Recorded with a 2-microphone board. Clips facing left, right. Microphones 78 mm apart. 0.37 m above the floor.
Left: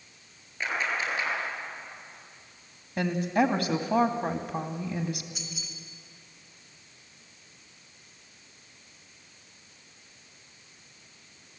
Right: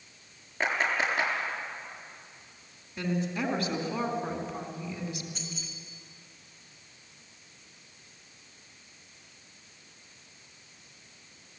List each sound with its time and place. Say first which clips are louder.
0.6 s a clap: right 2 dB; 35° right (ahead or behind), 6.5 m
3.0 s a woman speaking: left 6 dB; 60° left (ahead or behind), 2.5 m
5.3 s keys jangling: right 1 dB; 10° left (ahead or behind), 3.5 m